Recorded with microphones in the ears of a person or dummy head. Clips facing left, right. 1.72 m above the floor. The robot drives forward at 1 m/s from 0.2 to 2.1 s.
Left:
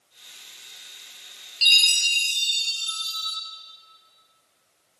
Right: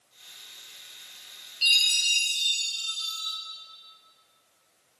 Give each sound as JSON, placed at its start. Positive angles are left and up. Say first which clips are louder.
{"t": 1.6, "sound": "a chime", "louder": "left 4 dB", "side_deg": 55, "distance_m": 1.8}